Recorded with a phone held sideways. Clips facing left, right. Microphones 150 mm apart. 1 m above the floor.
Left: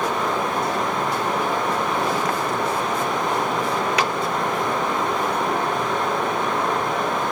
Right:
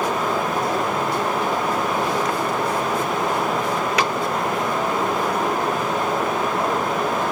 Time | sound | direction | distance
0.0 | running water | 5° right (ahead or behind) | 5 m